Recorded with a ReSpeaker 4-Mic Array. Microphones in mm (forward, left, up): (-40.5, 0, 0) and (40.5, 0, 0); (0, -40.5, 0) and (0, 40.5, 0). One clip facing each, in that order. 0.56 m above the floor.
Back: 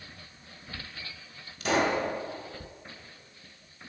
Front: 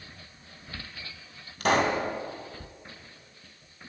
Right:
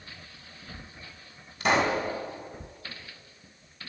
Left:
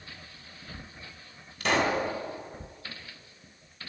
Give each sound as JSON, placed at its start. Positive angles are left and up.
{"t": 1.6, "sound": "a pop", "azimuth_deg": -15, "distance_m": 2.0}